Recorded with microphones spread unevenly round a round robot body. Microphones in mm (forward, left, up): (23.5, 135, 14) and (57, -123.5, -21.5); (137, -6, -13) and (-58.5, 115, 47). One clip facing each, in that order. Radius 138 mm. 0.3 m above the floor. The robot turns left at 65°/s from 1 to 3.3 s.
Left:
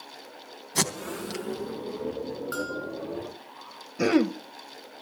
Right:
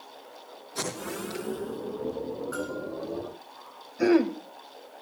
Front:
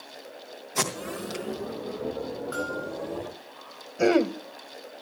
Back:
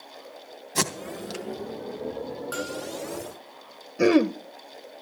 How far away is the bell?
About 3.5 m.